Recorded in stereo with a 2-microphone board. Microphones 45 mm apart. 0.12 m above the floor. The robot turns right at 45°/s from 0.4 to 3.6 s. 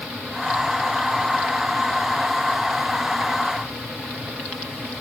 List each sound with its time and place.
Only background noise.